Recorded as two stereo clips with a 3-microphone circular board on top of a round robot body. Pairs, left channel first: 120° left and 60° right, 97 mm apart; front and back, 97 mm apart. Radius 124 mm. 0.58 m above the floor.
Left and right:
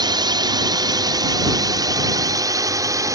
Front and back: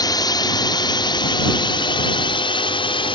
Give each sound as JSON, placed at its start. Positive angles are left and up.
{"t": 0.0, "sound": "a drone", "azimuth_deg": -35}